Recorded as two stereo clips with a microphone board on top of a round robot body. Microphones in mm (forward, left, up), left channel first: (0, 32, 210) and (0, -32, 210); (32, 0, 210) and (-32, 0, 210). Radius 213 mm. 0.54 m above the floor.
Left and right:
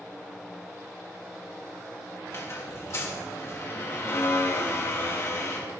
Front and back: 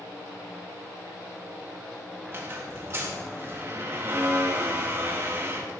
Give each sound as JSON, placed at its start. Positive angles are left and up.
{"t": 2.3, "sound": "a squeak", "azimuth_deg": 130, "distance_m": 2.0}